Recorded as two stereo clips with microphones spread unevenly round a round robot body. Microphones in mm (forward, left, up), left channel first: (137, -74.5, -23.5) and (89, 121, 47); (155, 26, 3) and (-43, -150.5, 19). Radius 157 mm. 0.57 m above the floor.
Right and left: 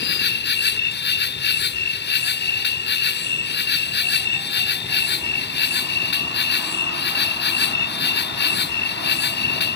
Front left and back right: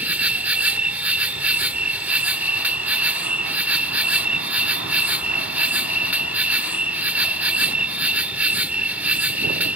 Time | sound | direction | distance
0.0 | an insect | 55° right | ?